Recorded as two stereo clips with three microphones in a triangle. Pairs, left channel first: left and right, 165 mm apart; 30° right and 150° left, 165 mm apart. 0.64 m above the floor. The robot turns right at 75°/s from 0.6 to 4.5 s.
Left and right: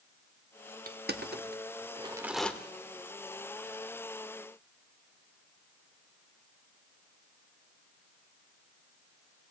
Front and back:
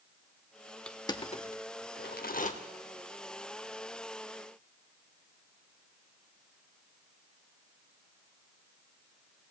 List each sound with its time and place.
0.9 s crushing: 115° right, 0.7 m; by 2.5 s 10° left, 0.7 m